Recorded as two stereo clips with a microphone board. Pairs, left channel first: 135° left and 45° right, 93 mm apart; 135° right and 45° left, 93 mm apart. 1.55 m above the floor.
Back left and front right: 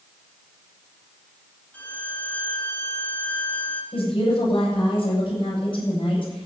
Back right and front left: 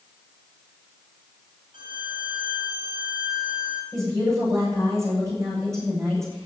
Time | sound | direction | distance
1.7 | a violin | 65° left | 2.5 m
3.9 | a woman speaking | 105° left | 8 m